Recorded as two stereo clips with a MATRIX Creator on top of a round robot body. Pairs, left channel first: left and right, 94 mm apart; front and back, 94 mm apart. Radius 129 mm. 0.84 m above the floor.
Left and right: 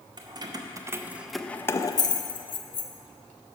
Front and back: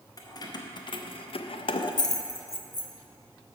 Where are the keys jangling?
50° right, 0.8 m; by 2.9 s 70° left, 0.9 m.